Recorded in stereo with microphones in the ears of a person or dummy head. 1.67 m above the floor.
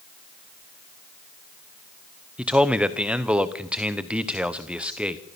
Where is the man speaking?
5° right (ahead or behind), 1.0 m.